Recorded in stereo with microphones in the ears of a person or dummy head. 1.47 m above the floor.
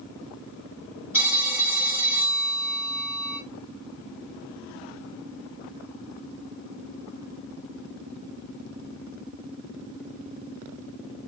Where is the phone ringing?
5° right (ahead or behind), 4 m.